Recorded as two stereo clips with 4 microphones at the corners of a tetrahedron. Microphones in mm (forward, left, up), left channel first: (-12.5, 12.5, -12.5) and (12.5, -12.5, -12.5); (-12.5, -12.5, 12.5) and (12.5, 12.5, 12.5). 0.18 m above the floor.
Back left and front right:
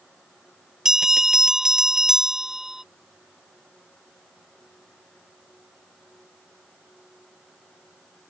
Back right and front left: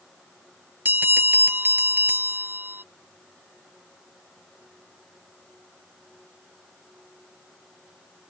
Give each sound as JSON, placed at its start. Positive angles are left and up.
{"t": 0.8, "sound": "a bell", "azimuth_deg": 30}